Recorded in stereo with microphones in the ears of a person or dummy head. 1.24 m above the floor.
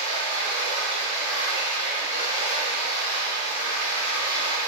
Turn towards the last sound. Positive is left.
turn(degrees=35)  # may be behind; listen again after turning